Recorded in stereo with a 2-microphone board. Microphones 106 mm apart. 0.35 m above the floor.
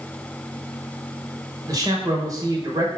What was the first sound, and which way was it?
A man speaking, 35° right (ahead or behind).